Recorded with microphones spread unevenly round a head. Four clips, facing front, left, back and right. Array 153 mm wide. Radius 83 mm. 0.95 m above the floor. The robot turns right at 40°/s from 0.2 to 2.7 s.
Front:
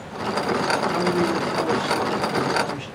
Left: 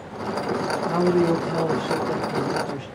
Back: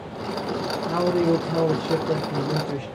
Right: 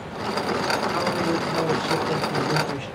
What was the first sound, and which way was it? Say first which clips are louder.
A man speaking: left 4 dB, back 1 dB; 130° left.